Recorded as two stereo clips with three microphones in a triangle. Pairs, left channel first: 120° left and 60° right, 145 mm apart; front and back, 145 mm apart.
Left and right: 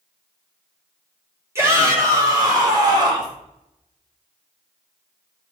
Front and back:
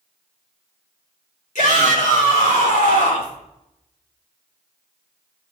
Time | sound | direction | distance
1.6 | a shout | 10° left | 4 m